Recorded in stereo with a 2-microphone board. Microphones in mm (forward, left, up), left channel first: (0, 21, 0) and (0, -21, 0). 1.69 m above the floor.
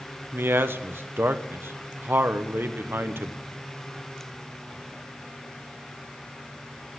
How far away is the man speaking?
About 1.1 m.